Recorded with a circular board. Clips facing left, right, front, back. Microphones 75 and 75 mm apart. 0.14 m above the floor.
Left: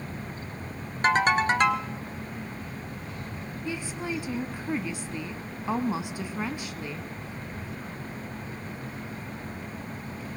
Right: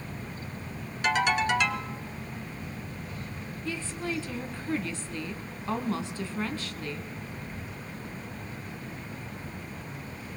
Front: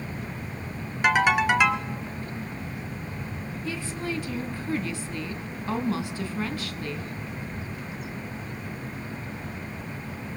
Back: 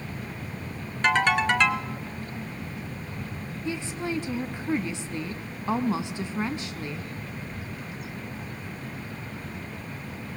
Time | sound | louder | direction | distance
1.0 | a ringtone | left 3 dB, front 1 dB | 75° left | 1.4 m
3.6 | a woman speaking | left 1 dB, back 2 dB | 145° left | 1.1 m